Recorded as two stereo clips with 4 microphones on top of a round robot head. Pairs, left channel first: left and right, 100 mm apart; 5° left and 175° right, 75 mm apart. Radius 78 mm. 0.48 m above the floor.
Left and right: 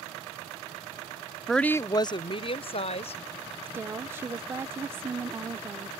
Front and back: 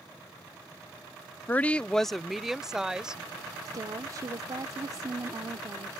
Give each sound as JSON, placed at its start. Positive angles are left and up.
{"t": 1.5, "sound": "a woman speaking", "azimuth_deg": 0}
{"t": 3.7, "sound": "a woman speaking", "azimuth_deg": -150}